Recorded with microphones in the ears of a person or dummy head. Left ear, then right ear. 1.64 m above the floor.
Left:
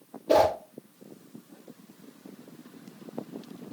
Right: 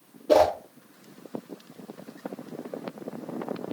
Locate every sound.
0.3 s a whoosh: 10° left (ahead or behind), 2 m